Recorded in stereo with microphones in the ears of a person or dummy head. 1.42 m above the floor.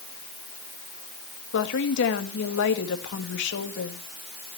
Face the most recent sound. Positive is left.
turn(degrees=70)  # may be behind; listen again after turning